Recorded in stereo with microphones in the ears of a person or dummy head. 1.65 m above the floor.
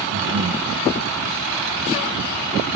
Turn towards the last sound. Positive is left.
turn(degrees=-45)  # may be behind; listen again after turning